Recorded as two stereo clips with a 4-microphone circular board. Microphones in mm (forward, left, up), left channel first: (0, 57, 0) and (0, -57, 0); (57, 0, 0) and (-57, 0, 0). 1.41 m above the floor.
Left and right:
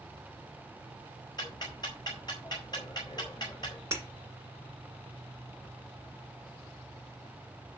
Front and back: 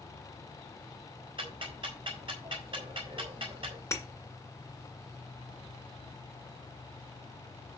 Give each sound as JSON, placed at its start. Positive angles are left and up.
{"t": 1.4, "sound": "ticking", "azimuth_deg": 140, "distance_m": 3.5}
{"t": 3.9, "sound": "breaking glass", "azimuth_deg": -45, "distance_m": 1.6}